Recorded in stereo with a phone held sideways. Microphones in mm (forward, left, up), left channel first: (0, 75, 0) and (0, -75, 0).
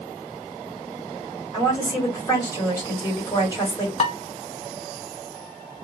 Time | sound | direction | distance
1.5 | a woman speaking | 25° left (ahead or behind) | 2.5 m
4.0 | dishes clattering | 45° left (ahead or behind) | 1.0 m